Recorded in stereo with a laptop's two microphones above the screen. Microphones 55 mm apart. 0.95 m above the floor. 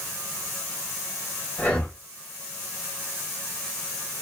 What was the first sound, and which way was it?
Breathing, 20° left (ahead or behind).